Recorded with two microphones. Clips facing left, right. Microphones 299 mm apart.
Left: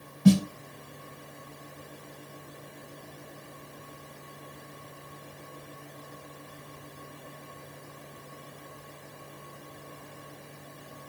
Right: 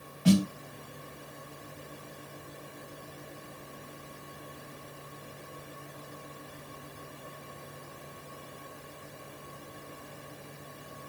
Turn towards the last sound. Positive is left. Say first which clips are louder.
# left 3 dB
turn(degrees=55)  # may be behind; listen again after turning